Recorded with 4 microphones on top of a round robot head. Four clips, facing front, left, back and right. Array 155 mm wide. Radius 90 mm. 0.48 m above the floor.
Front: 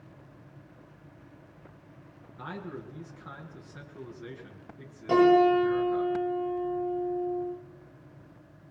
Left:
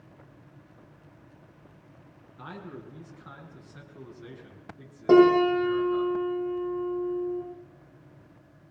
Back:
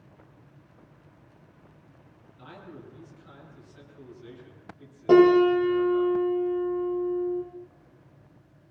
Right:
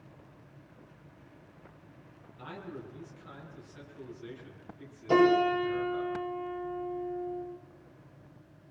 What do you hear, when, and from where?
2.4 s a man speaking: 35° left, 7 m
5.1 s a piano: 125° left, 8 m